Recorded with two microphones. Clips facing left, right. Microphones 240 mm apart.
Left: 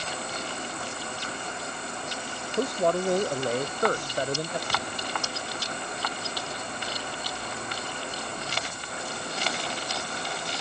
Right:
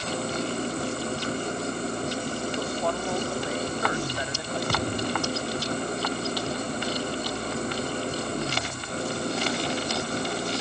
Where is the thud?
55° right (ahead or behind).